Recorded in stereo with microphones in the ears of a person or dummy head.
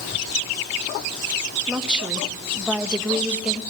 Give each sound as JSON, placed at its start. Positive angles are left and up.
{"t": 1.7, "sound": "a woman speaking", "side_deg": -5, "distance_m": 2.0}